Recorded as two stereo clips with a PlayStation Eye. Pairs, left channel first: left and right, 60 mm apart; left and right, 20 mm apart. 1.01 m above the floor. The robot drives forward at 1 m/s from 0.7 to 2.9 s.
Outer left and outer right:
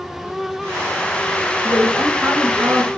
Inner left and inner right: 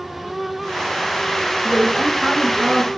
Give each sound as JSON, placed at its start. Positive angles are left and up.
{"t": 1.6, "sound": "a woman speaking", "side_deg": -45, "distance_m": 6.0}